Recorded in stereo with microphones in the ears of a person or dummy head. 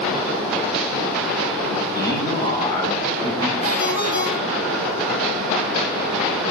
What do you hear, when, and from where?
1.9 s a man speaking: 30° left (ahead or behind), 7 m
3.6 s a ringtone: 85° left, 8.5 m